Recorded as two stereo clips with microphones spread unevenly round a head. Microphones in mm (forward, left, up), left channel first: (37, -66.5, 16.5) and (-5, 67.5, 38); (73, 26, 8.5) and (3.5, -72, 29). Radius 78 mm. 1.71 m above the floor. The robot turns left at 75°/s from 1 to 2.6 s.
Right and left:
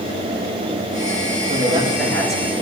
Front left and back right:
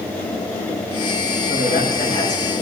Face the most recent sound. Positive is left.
turn(degrees=-25)